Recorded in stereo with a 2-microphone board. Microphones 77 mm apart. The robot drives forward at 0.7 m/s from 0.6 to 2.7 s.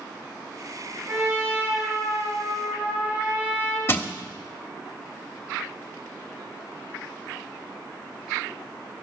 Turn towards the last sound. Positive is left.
turn(degrees=30)  # may be behind; listen again after turning